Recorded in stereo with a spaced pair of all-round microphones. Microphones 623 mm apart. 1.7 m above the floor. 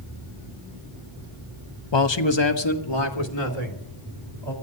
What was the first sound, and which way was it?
A man speaking, 45° left (ahead or behind).